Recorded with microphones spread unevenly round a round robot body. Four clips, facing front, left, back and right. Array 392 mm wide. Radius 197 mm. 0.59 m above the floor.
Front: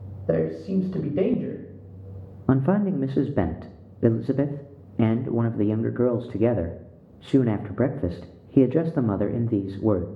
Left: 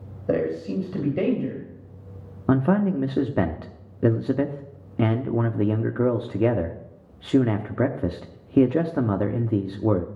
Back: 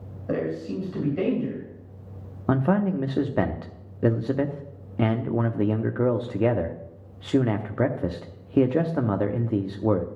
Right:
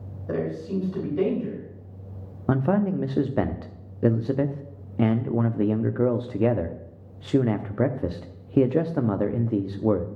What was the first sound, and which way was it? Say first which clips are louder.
A man speaking: left 4 dB, front 4 dB; 35° left.